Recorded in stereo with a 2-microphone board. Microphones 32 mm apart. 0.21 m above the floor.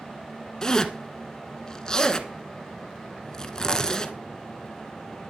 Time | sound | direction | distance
0.6 | a zipper | 20° left (ahead or behind) | 1.1 m